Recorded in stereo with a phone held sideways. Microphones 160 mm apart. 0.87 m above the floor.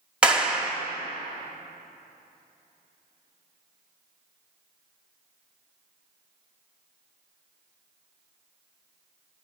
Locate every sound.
0.2 s a clap: 5° right (ahead or behind), 1.4 m